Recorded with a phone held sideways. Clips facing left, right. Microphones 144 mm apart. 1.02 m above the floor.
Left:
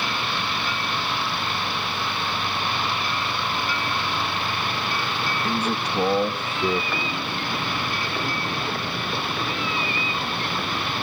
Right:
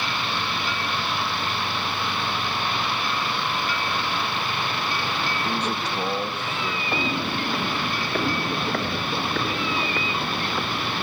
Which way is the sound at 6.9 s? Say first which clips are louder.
Right 3 dB; 40° right (ahead or behind).